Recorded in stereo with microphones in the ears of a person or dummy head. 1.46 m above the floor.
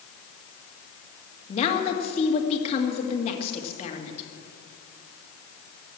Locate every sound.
1.5 s a woman speaking: 30° left (ahead or behind), 2.5 m